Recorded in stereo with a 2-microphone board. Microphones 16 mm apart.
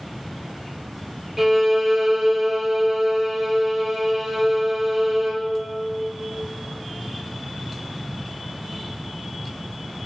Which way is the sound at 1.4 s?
20° right (ahead or behind).